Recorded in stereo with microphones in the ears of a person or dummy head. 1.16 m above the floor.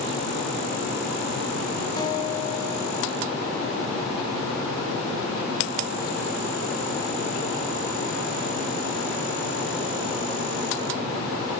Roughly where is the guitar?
Left.